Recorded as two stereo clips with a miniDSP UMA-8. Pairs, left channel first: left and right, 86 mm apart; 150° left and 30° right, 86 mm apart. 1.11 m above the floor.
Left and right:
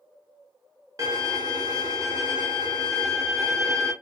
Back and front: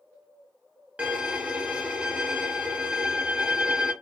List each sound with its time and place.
1.0 s a violin: 100° right, 1.0 m